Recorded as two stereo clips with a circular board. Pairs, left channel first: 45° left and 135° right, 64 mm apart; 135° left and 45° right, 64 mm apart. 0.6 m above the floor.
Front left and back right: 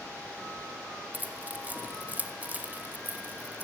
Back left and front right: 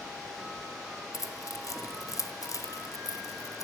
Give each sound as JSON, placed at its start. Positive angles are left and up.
{"t": 1.1, "sound": "keys jangling", "azimuth_deg": 160, "distance_m": 1.6}